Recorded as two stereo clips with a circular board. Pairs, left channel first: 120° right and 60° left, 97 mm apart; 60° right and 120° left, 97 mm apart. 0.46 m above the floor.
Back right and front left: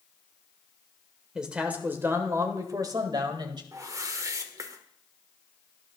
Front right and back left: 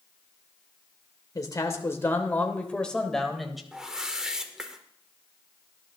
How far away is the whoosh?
About 1.5 m.